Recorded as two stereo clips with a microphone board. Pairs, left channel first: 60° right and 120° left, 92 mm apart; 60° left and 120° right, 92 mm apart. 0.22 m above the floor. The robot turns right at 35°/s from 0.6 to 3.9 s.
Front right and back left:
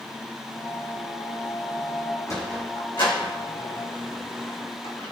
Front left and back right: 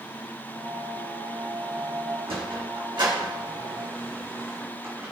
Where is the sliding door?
110° right, 4 m; by 5.1 s 55° right, 4 m.